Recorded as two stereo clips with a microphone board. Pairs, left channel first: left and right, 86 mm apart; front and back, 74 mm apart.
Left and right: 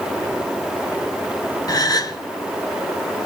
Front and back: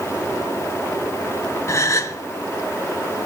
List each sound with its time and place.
1.7 s a gasp: 50° left, 1.9 m